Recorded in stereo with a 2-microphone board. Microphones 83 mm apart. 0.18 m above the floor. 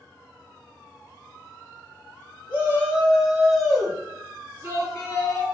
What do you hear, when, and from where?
2.5 s a shout: 25° right (ahead or behind), 1.5 m; by 5.4 s 35° left (ahead or behind), 1.7 m